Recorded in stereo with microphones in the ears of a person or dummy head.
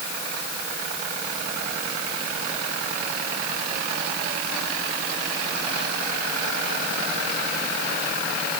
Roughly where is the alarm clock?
I don't hear an alarm clock.